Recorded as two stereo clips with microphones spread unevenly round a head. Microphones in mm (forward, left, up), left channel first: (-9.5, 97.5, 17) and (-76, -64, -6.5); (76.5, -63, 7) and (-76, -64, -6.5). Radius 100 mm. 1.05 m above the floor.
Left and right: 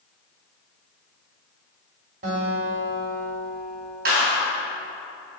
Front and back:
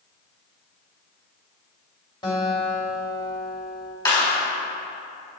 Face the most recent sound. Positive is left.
turn(degrees=-65)